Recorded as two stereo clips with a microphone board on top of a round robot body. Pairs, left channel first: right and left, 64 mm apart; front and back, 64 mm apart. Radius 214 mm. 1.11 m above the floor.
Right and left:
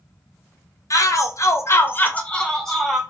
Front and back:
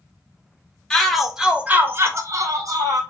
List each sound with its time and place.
0.9 s a shout: 80° right, 1.0 m; by 3.0 s straight behind, 1.2 m